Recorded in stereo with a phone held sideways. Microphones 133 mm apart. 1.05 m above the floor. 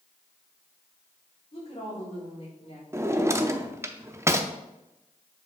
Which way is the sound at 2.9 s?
20° right (ahead or behind).